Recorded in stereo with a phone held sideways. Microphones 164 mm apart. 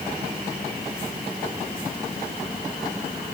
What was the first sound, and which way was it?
Only background noise.